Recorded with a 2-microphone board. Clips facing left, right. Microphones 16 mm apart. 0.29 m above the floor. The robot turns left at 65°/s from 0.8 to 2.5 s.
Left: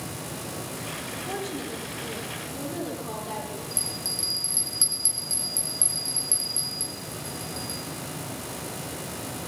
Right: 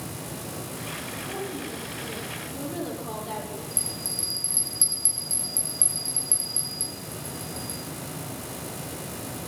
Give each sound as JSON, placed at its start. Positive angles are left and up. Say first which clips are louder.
{"t": 1.3, "sound": "a woman speaking", "louder": "left 2 dB", "azimuth_deg": 70, "distance_m": 8.5}
{"t": 3.7, "sound": "a bell", "louder": "left 4 dB", "side_deg": 25, "distance_m": 4.0}